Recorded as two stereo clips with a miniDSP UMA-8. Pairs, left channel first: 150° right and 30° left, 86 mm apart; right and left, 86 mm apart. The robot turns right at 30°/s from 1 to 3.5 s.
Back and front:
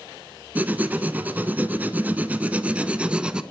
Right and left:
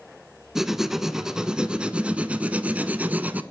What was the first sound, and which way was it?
Writing, 15° left.